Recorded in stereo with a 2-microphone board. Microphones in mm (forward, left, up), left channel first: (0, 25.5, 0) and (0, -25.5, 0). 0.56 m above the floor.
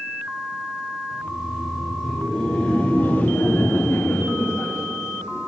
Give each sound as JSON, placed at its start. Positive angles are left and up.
{"t": 1.1, "sound": "laughter", "side_deg": -10, "distance_m": 3.0}